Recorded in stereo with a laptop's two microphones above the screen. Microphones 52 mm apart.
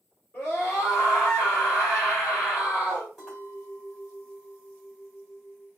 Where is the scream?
35° left (ahead or behind), 2.5 m.